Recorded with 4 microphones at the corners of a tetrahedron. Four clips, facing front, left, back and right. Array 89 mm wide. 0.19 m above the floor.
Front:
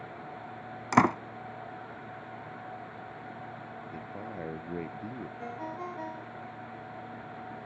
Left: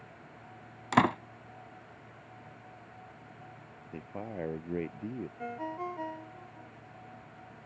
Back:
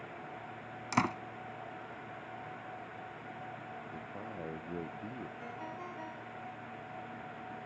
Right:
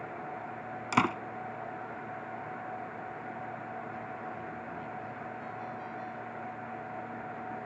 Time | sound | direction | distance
0.9 | a door slam | 10° left | ?
3.9 | a man speaking | 75° left | ?
5.4 | a ringtone | 60° left | ?